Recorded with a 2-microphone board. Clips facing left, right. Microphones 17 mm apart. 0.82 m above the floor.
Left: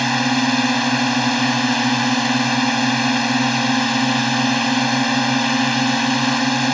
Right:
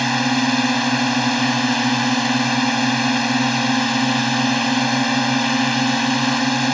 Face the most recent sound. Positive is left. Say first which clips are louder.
# left 1 dB
turn(degrees=5)  # may be behind; listen again after turning